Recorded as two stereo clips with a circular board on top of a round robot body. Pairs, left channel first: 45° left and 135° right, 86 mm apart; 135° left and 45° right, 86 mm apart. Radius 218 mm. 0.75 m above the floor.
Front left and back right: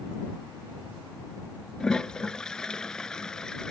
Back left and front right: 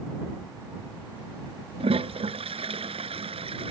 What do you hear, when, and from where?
1.8 s a toilet flushing: 35° right